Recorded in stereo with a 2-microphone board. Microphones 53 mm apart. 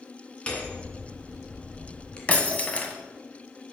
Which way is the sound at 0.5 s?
20° left (ahead or behind).